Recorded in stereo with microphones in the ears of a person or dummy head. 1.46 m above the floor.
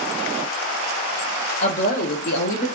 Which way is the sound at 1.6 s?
35° left (ahead or behind).